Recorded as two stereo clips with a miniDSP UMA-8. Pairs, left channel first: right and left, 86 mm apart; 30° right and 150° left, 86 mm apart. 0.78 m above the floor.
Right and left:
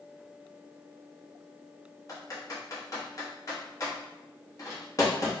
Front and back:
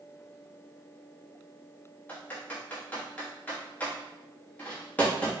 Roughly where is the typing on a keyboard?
Right.